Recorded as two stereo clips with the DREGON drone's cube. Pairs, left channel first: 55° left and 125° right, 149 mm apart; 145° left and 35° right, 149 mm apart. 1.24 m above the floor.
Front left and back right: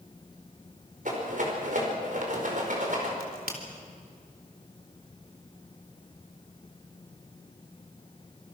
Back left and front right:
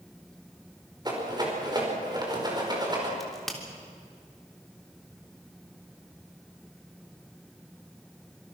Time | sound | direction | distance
1.1 | a rattle | 95° right | 5 m
3.2 | a crack | 125° right | 3.5 m